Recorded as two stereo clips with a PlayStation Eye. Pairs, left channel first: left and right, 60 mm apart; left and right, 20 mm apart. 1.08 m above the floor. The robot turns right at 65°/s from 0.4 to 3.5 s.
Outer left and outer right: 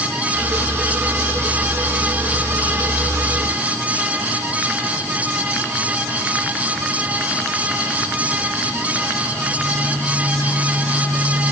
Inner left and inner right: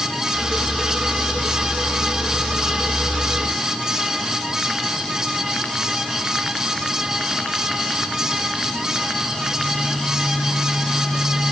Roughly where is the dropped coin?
No dropped coin in this recording.